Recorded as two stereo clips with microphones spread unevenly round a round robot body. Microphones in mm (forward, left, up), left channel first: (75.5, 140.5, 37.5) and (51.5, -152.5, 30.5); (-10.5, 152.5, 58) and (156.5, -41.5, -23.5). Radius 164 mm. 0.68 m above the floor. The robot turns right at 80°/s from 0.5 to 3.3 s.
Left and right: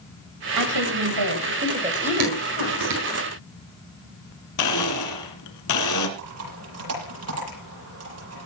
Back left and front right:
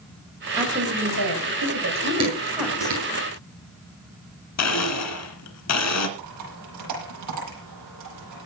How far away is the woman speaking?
About 4 m.